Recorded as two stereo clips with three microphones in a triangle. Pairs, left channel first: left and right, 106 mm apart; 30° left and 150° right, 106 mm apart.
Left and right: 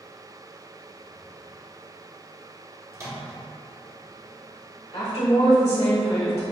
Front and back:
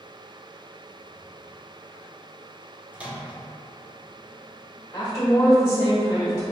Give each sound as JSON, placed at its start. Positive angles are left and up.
{"t": 2.9, "sound": "a microwave", "azimuth_deg": -90, "distance_m": 0.8}
{"t": 4.9, "sound": "a woman speaking", "azimuth_deg": 85, "distance_m": 1.4}